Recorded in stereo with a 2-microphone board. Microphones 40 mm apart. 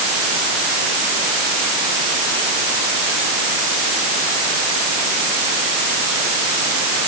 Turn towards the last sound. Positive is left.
No sound to turn to.